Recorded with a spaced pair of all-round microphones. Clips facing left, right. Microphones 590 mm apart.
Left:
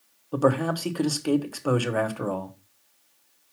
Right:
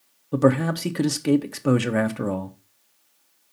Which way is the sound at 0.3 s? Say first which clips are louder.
Right 4 dB; 50° right (ahead or behind).